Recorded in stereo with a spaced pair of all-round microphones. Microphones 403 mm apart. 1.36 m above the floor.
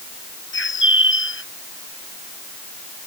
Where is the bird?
30° left (ahead or behind).